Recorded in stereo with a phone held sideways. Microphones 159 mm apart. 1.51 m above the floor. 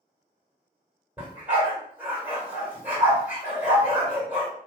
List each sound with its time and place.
1.2 s a dog barking: 10° right (ahead or behind), 1.7 m